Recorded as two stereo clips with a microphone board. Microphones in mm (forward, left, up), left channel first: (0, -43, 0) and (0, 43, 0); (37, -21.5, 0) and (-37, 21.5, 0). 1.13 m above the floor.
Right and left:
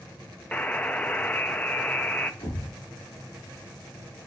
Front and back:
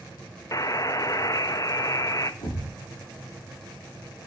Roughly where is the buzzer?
Ahead right.